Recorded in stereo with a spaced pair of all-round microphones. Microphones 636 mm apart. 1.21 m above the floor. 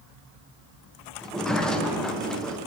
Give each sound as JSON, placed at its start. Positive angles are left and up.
{"t": 1.2, "sound": "a sliding door", "side_deg": 0, "distance_m": 0.5}